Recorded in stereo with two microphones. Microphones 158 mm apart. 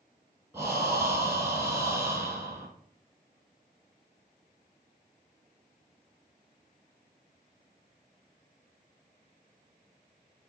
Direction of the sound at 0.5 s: 20° right (ahead or behind).